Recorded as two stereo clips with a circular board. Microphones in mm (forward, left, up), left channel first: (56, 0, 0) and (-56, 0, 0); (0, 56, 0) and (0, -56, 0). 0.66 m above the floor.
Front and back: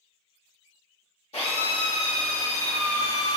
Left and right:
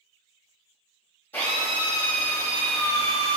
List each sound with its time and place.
1.3 s a drill: 20° left, 1.1 m